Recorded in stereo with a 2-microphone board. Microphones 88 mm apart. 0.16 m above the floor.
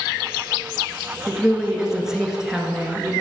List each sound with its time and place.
1.3 s a woman speaking: 5° right (ahead or behind), 1.8 m